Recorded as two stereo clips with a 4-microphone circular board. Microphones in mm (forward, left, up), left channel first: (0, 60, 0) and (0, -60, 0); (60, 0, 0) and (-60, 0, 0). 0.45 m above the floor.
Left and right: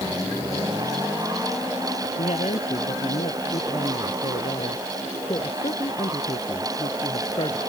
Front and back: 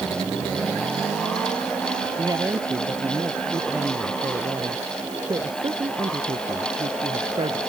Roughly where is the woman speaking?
Behind left.